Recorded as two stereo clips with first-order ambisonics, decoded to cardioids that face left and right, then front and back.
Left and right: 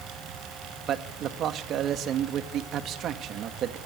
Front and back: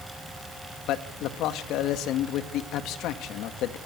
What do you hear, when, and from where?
0.9 s a man speaking: 40° right, 2 m